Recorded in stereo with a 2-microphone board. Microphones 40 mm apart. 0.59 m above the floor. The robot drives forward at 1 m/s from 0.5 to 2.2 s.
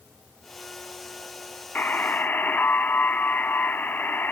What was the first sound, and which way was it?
A buzzer, 50° left (ahead or behind).